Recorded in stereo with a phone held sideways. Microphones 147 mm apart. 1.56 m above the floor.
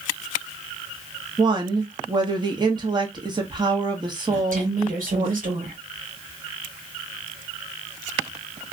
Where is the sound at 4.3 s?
80° right, 1.5 m.